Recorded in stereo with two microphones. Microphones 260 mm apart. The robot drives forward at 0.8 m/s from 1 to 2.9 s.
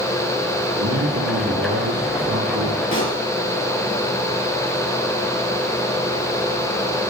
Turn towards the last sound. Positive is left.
turn(degrees=50)  # may be behind; listen again after turning